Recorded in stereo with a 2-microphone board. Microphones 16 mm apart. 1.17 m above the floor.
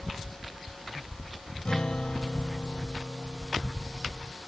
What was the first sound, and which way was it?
A guitar, 55° left (ahead or behind).